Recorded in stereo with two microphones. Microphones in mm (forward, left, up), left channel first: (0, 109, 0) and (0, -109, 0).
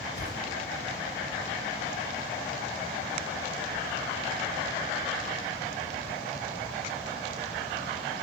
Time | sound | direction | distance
0.1 | a whoosh | 55° left (ahead or behind) | 3 m